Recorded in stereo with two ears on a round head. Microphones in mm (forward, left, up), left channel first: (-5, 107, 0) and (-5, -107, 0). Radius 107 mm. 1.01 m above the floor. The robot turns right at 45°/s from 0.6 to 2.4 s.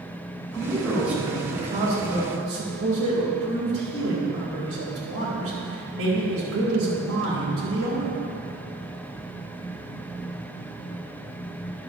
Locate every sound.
0.5 s a man speaking: 165° left, 4 m; by 8.1 s 115° right, 4 m